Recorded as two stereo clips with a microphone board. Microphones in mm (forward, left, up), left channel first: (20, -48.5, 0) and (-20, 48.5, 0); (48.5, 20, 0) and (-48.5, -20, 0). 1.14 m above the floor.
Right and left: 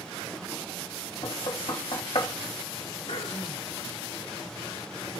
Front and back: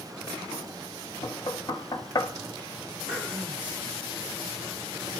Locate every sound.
1.2 s knocking: 30° right, 1.0 m
3.1 s throat clearing: 60° right, 1.6 m